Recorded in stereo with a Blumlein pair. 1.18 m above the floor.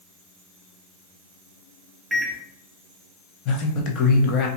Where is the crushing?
No crushing in this recording.